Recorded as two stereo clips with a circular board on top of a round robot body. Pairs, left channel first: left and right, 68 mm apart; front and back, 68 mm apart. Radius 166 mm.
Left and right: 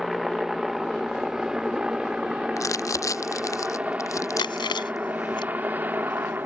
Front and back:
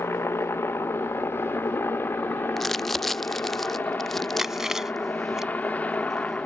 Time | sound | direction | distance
0.0 | a helicopter | 5° right | ?
2.6 | crumpling | 85° left | ?
4.4 | chewing | 95° left | ?